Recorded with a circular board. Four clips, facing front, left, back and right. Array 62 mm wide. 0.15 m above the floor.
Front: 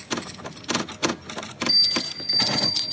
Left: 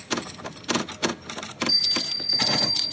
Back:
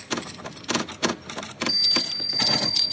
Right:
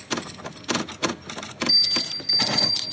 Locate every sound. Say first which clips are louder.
1.7 s a bell: right 1 dB, front 1 dB; 45° right, 5.5 m